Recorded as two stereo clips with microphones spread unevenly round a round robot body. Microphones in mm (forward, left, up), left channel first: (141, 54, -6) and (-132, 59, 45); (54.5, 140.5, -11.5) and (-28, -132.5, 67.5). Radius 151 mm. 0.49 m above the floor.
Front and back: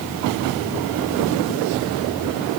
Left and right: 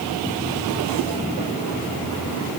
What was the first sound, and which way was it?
Only background noise.